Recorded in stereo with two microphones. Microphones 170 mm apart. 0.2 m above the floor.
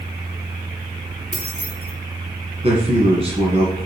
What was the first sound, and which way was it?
Keys jangling, 45° left (ahead or behind).